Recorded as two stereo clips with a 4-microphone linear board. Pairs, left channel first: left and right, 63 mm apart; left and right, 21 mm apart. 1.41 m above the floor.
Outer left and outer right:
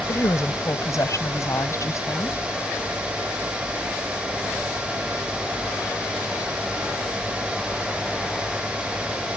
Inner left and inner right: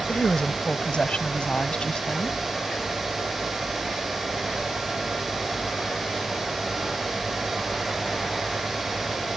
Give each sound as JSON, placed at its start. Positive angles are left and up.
{"t": 0.1, "sound": "a woman speaking", "side_deg": 60}